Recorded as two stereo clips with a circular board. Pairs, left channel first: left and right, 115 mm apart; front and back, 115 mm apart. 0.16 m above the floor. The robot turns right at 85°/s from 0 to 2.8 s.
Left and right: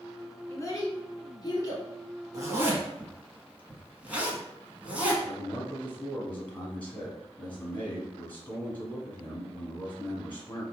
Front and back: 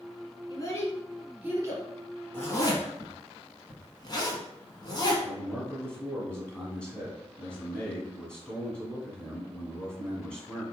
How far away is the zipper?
About 1.0 m.